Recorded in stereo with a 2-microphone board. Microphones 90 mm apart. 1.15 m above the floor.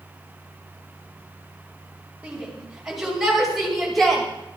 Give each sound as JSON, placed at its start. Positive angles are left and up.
{"t": 2.2, "sound": "a shout", "side_deg": -10, "distance_m": 6.5}